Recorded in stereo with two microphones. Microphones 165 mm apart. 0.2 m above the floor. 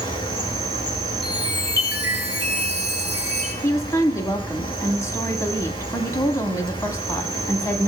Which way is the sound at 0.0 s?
30° left (ahead or behind).